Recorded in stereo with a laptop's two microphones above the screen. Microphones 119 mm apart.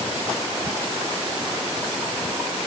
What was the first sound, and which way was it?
Only background noise.